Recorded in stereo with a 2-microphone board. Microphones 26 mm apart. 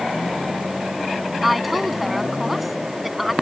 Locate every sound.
1.4 s a woman speaking: 5° right (ahead or behind)